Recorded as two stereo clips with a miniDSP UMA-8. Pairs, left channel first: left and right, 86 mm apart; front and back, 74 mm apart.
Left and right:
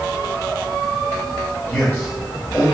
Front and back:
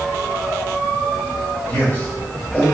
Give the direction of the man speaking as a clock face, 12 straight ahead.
10 o'clock.